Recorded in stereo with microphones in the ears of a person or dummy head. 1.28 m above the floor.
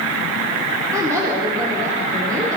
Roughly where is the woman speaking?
Right.